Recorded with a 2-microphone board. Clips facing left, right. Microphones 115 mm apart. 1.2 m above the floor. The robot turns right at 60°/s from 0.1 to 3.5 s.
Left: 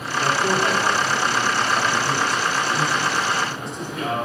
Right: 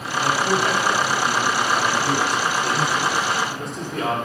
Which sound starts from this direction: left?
A man speaking, at 0.2 s.